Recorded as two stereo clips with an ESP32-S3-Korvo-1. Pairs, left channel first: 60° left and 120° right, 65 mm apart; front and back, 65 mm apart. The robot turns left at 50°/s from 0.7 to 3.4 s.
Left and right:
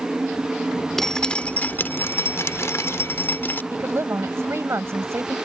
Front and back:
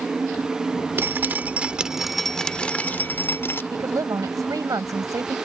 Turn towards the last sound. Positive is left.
turn(degrees=-165)